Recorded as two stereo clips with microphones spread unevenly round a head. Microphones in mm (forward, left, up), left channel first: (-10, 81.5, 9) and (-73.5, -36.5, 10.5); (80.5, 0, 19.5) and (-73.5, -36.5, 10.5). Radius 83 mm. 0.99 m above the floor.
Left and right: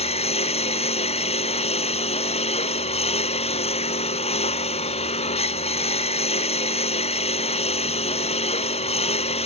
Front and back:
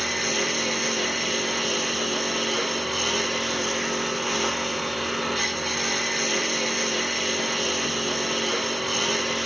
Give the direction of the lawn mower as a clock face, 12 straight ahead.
9 o'clock.